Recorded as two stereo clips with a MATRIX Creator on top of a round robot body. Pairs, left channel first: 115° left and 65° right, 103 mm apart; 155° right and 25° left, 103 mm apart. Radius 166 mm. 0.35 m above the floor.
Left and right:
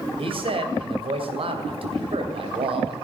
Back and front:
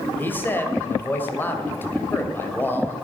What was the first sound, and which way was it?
A man speaking, 90° right.